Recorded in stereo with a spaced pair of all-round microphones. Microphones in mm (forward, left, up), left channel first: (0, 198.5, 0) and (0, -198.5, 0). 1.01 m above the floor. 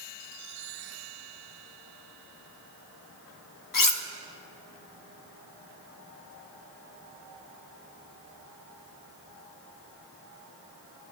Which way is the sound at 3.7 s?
55° left (ahead or behind).